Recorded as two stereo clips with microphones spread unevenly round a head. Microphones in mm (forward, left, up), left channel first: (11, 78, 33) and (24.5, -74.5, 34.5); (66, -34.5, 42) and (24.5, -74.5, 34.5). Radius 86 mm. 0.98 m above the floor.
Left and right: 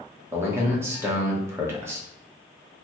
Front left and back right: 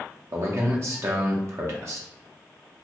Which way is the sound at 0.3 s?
155° right.